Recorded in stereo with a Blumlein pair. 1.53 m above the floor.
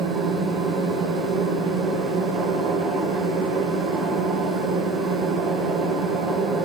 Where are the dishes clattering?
No dishes clattering in this recording.